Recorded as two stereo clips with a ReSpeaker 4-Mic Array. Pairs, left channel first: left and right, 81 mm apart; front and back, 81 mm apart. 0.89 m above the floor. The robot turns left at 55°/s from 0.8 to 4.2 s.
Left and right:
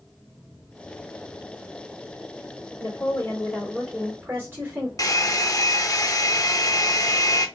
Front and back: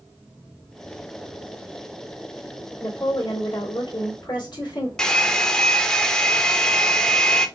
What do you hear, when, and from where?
2.8 s a woman speaking: 50° left, 2.5 m; by 4.9 s 25° right, 2.5 m
5.0 s a hair dryer: 80° left, 0.6 m